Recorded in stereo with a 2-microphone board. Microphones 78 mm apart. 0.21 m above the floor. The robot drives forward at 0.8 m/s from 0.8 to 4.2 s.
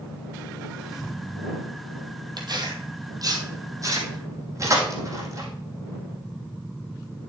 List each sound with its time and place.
2.4 s tearing paper: 60° right (ahead or behind), 2.5 m; by 5.5 s 40° right (ahead or behind), 3.5 m